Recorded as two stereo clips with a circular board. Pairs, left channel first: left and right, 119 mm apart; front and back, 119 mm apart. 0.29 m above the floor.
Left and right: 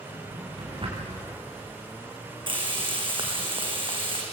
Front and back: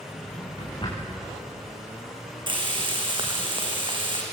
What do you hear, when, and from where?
0.1 s a drawer: 50° right, 7.5 m
2.5 s frying: 135° right, 4.5 m